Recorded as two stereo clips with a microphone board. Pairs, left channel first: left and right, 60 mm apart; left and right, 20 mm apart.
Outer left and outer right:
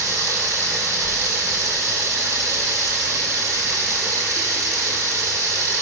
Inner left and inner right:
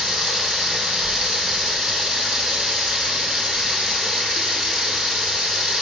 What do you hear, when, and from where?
0.0 s running water: 60° right (ahead or behind), 6.5 m